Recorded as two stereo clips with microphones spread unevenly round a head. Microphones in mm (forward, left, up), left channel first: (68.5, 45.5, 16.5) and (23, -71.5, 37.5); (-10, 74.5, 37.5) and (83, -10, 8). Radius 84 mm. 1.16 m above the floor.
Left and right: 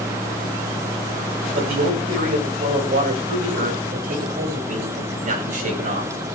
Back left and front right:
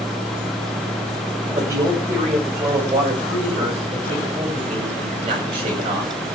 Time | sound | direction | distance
1.5 | a man speaking | 115° right | 7 m